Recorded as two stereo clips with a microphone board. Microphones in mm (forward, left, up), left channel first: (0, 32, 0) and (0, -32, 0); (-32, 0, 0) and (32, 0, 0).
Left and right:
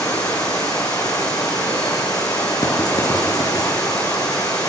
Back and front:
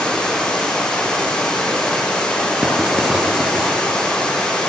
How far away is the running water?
About 5.5 m.